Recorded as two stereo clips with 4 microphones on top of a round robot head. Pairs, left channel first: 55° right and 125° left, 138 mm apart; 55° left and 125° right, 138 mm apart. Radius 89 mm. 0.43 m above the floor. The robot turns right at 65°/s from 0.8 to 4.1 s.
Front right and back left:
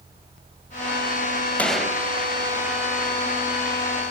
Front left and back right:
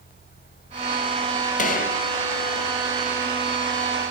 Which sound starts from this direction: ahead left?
A gunshot, at 1.6 s.